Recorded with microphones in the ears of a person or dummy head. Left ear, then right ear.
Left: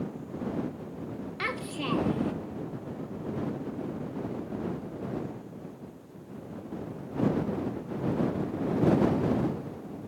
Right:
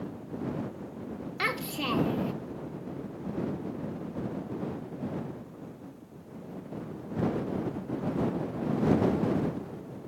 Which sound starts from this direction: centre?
A child speaking, at 1.4 s.